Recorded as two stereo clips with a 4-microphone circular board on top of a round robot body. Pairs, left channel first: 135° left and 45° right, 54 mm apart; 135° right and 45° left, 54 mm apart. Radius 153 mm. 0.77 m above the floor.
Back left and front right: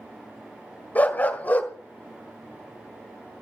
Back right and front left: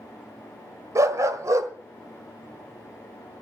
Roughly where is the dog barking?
Left.